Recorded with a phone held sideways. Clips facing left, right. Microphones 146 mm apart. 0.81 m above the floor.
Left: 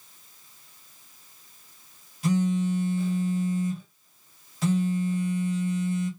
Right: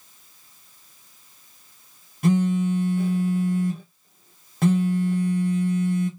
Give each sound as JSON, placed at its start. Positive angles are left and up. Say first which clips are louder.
{"t": 2.2, "sound": "a phone buzzing", "louder": "right 4 dB", "side_deg": -60, "distance_m": 1.0}